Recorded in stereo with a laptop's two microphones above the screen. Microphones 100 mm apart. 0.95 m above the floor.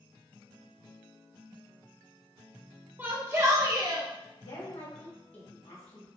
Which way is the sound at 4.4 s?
70° left (ahead or behind).